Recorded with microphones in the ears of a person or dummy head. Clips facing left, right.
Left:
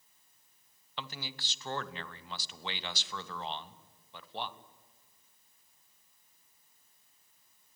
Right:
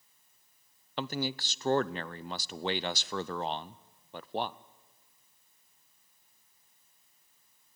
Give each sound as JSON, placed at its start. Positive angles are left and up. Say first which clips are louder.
{"t": 1.0, "sound": "a man speaking", "louder": "right 11 dB", "side_deg": -40, "distance_m": 0.5}